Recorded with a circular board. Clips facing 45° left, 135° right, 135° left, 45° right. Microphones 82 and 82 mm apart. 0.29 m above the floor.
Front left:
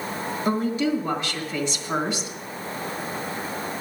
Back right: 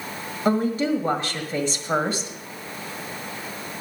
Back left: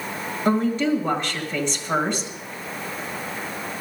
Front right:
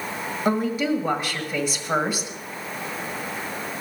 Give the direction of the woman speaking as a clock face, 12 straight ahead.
4 o'clock.